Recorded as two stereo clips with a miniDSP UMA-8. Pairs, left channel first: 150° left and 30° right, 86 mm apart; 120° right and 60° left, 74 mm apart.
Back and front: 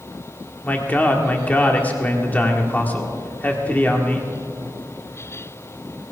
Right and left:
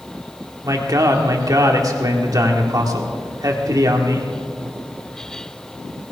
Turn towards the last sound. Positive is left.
turn(degrees=80)